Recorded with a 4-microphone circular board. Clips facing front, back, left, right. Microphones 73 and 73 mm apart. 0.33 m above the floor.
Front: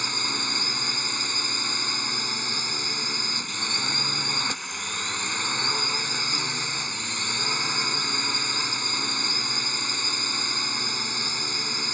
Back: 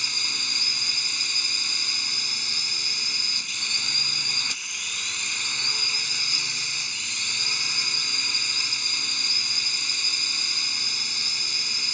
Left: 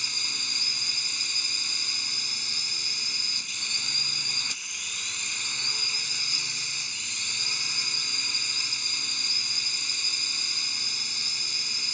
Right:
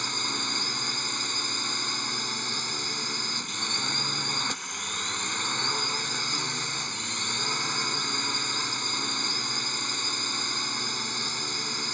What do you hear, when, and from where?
0.0 s a drone: 50° right